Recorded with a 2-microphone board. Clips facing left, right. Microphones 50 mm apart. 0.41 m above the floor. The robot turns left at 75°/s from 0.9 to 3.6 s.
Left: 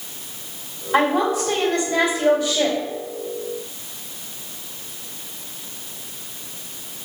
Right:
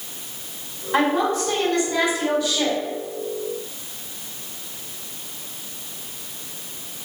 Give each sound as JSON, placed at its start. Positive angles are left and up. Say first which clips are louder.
{"t": 0.9, "sound": "a woman speaking", "louder": "left 1 dB", "azimuth_deg": -170, "distance_m": 1.8}